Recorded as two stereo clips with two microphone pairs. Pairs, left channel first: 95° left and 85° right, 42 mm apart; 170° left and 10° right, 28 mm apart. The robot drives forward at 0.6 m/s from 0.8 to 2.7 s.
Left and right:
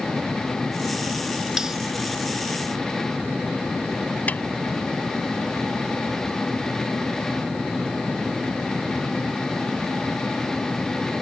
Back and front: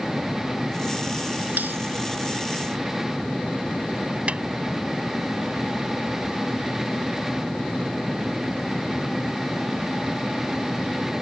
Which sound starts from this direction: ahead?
Cutlery clinking, at 1.6 s.